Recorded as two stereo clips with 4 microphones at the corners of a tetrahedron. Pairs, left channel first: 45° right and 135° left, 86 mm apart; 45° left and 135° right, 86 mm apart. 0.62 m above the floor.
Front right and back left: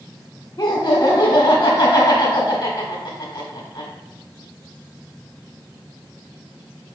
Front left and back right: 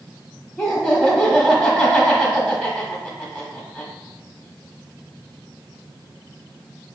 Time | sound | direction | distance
0.6 | laughter | 25° right | 1.2 m